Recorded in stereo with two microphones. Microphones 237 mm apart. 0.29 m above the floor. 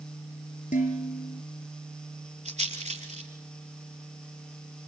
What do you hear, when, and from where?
0.7 s dishes clattering: 30° left (ahead or behind), 4.5 m
2.5 s a rattle: 30° right (ahead or behind), 4 m